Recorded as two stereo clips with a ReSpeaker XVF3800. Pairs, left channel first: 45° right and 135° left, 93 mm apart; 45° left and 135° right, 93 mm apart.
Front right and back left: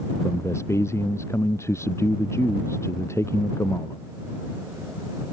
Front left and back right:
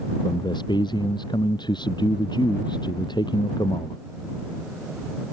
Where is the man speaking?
15° left.